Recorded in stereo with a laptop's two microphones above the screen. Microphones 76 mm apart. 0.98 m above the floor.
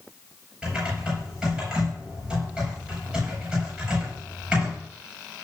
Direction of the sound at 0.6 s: 10° right (ahead or behind).